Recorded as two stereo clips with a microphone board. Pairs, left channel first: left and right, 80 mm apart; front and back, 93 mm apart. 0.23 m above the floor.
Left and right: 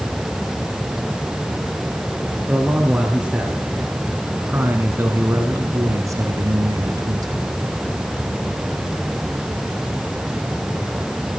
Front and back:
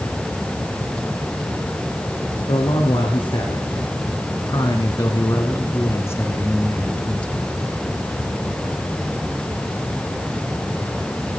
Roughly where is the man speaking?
Ahead.